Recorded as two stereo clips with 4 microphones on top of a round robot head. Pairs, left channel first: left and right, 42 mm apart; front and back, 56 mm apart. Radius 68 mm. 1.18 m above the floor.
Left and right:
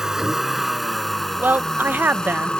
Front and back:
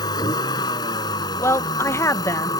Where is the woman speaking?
45° right.